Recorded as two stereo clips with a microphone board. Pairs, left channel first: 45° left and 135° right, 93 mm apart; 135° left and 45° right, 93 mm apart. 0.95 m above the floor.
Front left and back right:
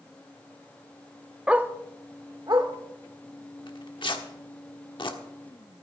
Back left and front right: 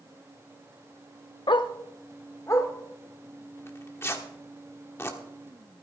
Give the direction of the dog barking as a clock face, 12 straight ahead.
7 o'clock.